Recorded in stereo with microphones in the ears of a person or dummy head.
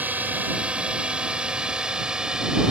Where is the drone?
5° right (ahead or behind); by 2.7 s centre (ahead or behind).